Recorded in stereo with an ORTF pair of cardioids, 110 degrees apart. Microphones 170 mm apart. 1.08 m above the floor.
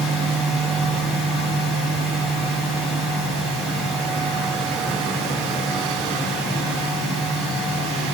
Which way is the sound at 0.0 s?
Straight ahead.